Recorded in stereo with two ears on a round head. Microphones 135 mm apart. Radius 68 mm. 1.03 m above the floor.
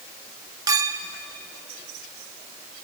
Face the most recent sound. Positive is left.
turn(degrees=-25)  # may be behind; listen again after turning